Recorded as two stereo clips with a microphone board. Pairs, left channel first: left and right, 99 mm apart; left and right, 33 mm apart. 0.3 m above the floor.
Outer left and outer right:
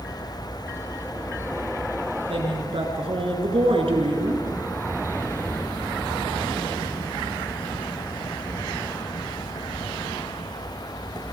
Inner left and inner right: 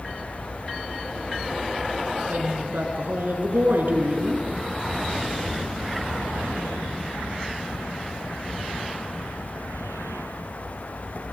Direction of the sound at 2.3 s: 75° right (ahead or behind).